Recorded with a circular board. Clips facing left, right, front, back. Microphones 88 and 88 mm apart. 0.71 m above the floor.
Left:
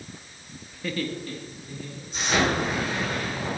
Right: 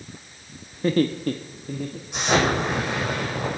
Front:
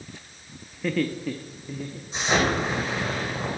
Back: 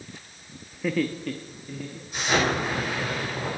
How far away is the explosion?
About 6 m.